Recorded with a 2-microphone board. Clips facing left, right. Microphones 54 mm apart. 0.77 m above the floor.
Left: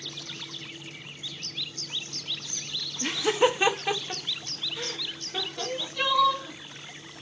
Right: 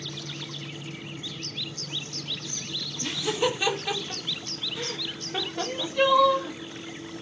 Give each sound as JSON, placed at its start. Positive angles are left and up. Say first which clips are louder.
{"t": 3.0, "sound": "laughter", "louder": "left 4 dB", "side_deg": 35, "distance_m": 1.4}
{"t": 5.6, "sound": "crying", "louder": "right 7 dB", "side_deg": -15, "distance_m": 1.6}